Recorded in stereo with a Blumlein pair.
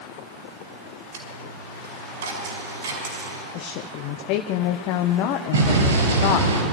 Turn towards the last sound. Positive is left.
turn(degrees=-70)